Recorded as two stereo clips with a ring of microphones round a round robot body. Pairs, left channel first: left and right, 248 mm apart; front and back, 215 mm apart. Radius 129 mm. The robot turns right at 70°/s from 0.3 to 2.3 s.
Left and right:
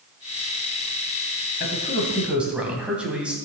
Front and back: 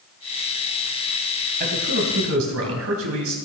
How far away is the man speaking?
About 3 m.